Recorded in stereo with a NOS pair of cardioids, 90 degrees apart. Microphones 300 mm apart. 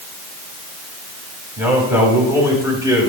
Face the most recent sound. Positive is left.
turn(degrees=-15)